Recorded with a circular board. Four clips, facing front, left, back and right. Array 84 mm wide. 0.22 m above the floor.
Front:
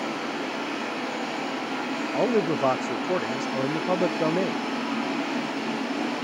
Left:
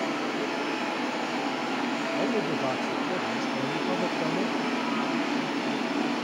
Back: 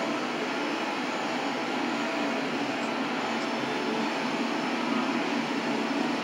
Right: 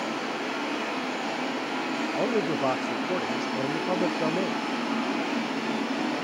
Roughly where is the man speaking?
Ahead.